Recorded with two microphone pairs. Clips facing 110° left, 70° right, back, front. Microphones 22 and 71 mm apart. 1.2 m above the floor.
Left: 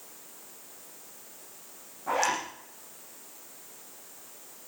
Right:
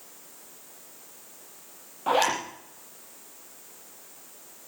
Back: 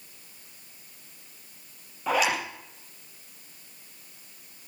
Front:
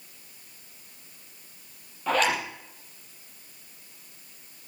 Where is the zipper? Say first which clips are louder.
Right 4 dB, front 1 dB; 95° right, 6.5 m.